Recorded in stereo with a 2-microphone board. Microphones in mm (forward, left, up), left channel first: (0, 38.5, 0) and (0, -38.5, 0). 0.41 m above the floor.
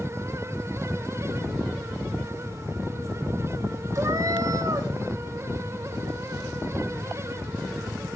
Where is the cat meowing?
45° right (ahead or behind), 1.2 m.